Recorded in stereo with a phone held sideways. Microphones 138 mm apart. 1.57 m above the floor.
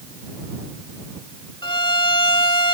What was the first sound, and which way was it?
A violin, 35° left (ahead or behind).